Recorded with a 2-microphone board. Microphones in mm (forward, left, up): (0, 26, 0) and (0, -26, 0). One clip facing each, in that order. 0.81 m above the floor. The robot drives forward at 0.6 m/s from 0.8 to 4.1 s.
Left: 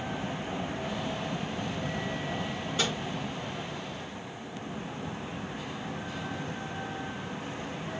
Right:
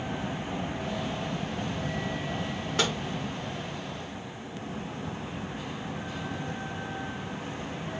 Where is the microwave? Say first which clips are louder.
Right 3 dB; 70° right (ahead or behind), 1.4 m; by 3.0 s 65° right (ahead or behind), 1.4 m.